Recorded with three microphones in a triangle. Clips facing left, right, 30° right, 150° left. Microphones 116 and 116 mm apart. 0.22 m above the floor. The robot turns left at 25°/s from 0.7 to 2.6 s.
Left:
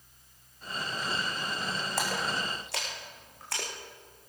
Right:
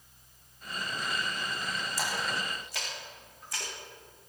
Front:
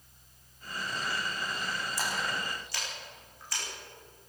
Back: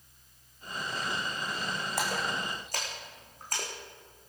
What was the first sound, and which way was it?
A splash, 120° left.